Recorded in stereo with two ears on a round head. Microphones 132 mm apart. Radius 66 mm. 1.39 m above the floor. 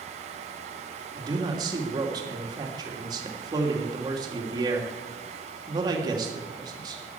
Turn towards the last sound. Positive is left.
turn(degrees=-30)  # may be behind; listen again after turning